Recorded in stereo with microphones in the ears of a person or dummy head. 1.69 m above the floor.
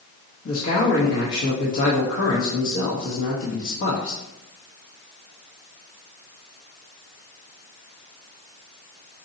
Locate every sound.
0.5 s a man speaking: 60° left (ahead or behind), 1.0 m